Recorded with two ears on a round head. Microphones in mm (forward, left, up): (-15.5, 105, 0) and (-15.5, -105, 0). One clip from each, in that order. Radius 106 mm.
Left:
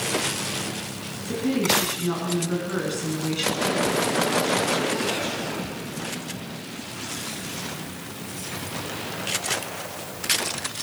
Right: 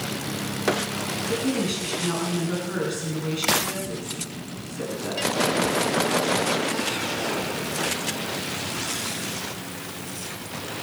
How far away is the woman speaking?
About 5 m.